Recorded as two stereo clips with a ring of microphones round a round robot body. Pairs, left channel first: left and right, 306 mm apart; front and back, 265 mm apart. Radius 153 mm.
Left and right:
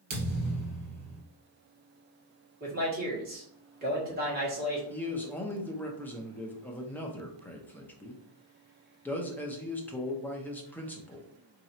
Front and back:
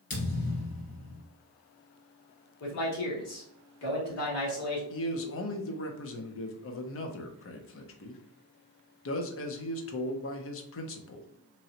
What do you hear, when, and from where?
0.1 s a thud: 50° right, 2 m
2.6 s a man speaking: 30° right, 1.7 m
4.9 s a man speaking: 5° left, 0.7 m